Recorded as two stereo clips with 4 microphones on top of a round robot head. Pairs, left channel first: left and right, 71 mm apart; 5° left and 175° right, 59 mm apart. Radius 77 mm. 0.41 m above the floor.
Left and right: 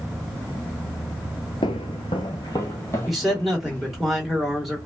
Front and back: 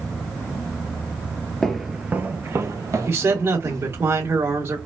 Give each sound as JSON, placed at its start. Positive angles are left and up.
{"t": 1.6, "sound": "footsteps", "azimuth_deg": 85, "distance_m": 0.5}
{"t": 3.1, "sound": "a man speaking", "azimuth_deg": -175, "distance_m": 1.6}